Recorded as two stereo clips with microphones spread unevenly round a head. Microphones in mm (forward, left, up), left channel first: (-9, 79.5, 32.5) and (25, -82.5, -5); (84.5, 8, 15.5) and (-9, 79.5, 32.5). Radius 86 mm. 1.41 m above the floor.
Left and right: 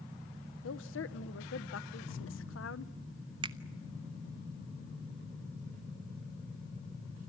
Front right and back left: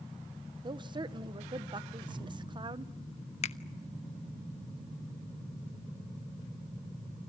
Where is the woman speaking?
90° left, 1.3 m.